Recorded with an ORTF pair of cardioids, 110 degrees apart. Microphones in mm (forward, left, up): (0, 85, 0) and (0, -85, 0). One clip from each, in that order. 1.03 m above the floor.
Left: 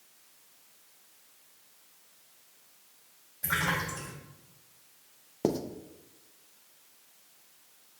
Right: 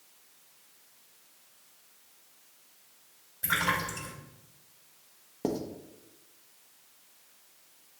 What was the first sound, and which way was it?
A splash, 20° right.